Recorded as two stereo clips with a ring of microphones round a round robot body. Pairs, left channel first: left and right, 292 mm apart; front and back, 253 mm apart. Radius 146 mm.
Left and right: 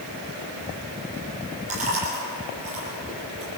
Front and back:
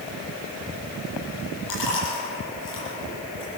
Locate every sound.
1.7 s chewing: 25° right, 9 m